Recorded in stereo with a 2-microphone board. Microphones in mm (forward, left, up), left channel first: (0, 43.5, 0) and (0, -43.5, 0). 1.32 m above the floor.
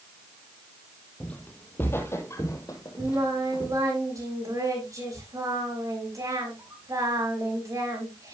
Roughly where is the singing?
Right.